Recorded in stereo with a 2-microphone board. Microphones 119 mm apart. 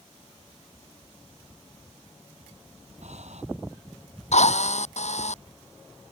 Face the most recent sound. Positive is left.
turn(degrees=75)  # may be behind; listen again after turning